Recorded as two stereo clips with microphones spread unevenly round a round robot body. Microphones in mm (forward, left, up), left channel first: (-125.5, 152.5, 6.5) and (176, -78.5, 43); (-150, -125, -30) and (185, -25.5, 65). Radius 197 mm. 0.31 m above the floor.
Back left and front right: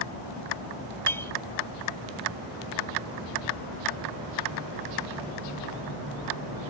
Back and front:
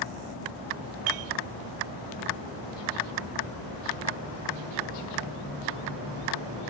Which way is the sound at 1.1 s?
60° left.